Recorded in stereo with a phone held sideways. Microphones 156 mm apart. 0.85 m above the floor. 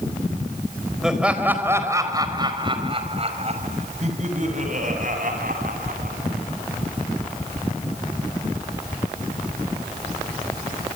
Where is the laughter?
5° right (ahead or behind), 4.5 m; by 6.2 s 65° right (ahead or behind), 8 m.